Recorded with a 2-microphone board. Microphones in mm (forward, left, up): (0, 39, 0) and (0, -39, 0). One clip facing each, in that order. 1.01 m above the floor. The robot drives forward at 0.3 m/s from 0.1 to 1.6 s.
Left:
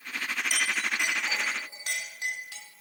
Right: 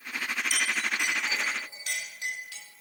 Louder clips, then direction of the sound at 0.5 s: Left 1 dB; 45° left (ahead or behind).